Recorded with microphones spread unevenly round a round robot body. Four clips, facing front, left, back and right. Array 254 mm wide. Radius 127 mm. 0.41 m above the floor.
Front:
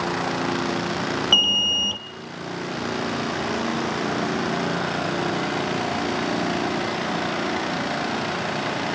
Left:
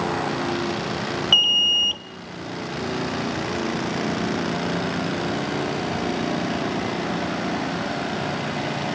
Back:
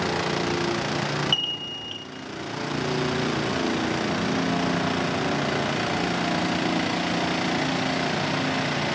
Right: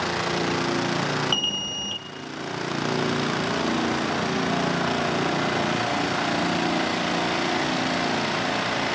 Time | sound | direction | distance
1.3 | an alarm | 5° left | 0.8 m